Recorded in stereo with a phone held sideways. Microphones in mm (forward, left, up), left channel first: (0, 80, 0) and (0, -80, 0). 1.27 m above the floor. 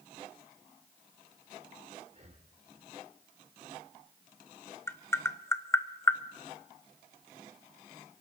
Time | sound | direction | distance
2.1 | breathing | 45° right (ahead or behind) | 2 m
4.9 | tapping | 15° left (ahead or behind) | 0.6 m